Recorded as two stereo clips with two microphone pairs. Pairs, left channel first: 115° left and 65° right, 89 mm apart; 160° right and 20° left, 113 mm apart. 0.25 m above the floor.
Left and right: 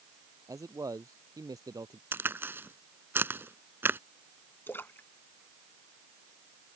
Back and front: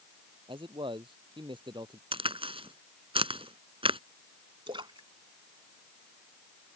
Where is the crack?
5° right.